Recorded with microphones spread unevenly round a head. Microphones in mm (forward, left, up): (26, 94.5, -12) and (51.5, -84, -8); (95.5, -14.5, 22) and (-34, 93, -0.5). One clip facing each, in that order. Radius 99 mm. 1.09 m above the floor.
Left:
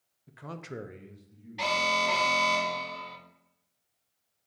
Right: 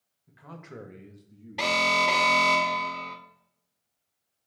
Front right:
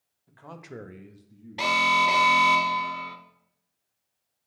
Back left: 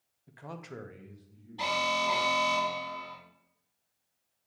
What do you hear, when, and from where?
0.3 s a man speaking: 75° left, 0.7 m; by 2.6 s 55° right, 1.9 m
1.6 s an alarm: 65° right, 0.6 m